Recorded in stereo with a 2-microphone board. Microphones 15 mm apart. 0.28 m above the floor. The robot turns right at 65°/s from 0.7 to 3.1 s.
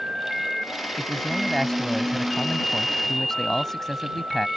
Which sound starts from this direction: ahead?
A man speaking, at 1.0 s.